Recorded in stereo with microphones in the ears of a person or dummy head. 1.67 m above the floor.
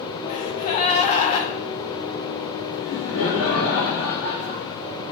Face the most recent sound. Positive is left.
turn(degrees=70)  # may be behind; listen again after turning